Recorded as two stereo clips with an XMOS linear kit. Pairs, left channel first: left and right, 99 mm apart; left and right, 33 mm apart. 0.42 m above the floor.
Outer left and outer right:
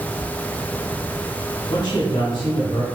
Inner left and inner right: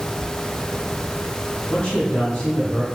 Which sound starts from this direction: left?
A man speaking, at 1.7 s.